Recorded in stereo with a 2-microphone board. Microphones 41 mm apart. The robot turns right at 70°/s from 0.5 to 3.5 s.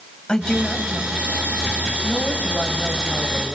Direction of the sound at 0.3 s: 25° left.